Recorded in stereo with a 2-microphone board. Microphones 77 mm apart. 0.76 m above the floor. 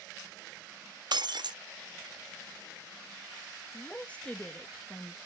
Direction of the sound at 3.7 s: 20° left (ahead or behind).